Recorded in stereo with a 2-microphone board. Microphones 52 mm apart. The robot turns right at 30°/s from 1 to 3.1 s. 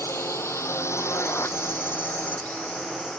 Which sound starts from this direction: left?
A drone, at 0.0 s.